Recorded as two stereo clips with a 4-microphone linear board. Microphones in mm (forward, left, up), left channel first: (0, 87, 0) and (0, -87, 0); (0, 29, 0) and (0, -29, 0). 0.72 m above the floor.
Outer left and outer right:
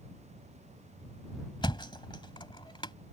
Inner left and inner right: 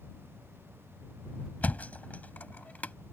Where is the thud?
25° left (ahead or behind).